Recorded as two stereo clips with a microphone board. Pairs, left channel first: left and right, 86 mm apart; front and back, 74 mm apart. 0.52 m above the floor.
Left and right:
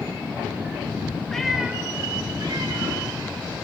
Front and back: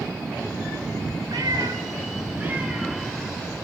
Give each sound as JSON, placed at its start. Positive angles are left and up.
{"t": 1.3, "sound": "a cat meowing", "azimuth_deg": 170, "distance_m": 0.8}